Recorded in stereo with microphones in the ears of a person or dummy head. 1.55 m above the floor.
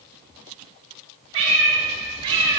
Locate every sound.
1.3 s a cat meowing: 35° right (ahead or behind), 1.8 m; by 2.6 s 25° right (ahead or behind), 1.0 m